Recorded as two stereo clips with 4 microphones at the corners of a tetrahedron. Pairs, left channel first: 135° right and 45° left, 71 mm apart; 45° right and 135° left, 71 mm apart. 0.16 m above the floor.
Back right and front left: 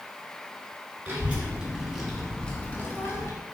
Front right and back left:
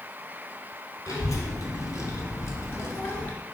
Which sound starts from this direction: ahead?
A child speaking, at 1.1 s.